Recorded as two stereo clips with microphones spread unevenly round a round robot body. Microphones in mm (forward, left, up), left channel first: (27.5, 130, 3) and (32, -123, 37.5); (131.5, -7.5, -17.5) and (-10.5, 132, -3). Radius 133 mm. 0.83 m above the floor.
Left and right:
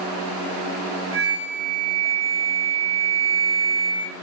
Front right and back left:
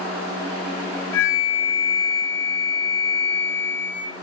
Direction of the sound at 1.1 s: 15° right.